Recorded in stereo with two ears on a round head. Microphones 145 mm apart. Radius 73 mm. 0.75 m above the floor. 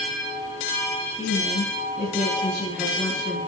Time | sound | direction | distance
1.2 | a woman speaking | 35° left (ahead or behind) | 6.5 m